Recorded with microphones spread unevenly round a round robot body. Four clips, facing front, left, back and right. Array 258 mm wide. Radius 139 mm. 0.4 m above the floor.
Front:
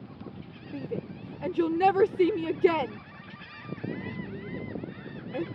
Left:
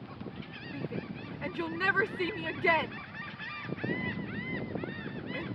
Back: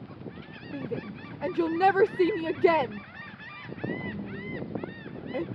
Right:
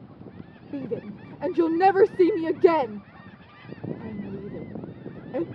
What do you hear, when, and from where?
0.7 s a shout: 95° right